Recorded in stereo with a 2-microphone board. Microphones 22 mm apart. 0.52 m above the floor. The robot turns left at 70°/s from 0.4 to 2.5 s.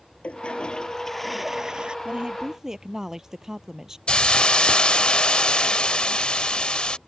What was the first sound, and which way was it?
A toilet flushing, 65° left.